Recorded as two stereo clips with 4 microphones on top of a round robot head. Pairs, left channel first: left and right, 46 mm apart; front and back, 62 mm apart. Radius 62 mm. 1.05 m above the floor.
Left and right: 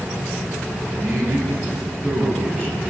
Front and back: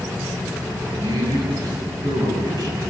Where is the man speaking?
155° right, 7 m.